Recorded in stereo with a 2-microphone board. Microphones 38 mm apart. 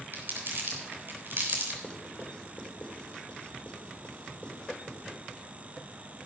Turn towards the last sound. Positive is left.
turn(degrees=25)  # may be behind; listen again after turning